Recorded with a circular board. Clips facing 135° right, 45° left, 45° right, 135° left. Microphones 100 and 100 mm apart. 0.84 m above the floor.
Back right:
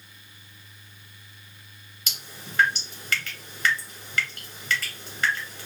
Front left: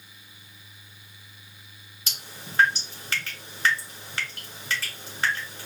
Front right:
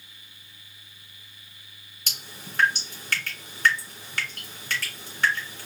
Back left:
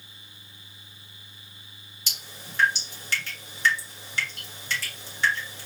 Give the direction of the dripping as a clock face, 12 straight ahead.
12 o'clock.